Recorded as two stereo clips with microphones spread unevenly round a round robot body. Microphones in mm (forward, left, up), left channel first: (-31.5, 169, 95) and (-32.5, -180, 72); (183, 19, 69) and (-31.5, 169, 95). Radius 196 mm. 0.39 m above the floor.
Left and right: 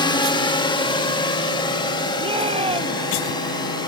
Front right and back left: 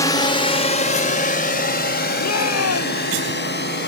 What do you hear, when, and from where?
0.0 s a drone: 20° left; by 3.9 s 10° left
2.2 s a shout: 15° right